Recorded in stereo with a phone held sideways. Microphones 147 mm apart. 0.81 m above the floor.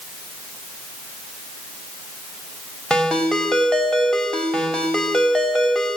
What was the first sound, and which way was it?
A ringtone, 5° left (ahead or behind).